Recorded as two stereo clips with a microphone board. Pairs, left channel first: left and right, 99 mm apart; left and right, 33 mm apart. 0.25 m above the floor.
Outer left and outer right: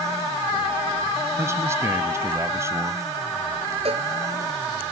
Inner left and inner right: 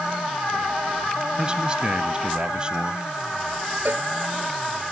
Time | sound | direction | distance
1.4 | a man speaking | 30° right (ahead or behind) | ?
3.9 | a cowbell | 70° right (ahead or behind) | ?